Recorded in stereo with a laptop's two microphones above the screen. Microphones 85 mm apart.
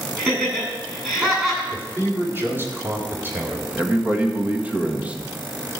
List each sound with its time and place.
0.2 s laughter: 10° right (ahead or behind), 7.5 m
1.7 s a man speaking: 25° right (ahead or behind), 4 m
3.8 s a man speaking: 20° right (ahead or behind), 1.4 m